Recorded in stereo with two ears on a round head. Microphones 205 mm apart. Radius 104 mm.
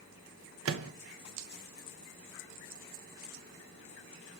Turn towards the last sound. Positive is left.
turn(degrees=-60)  # may be behind; listen again after turning